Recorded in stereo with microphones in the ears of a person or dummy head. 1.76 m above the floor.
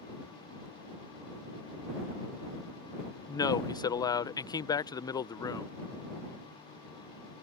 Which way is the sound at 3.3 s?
20° left (ahead or behind).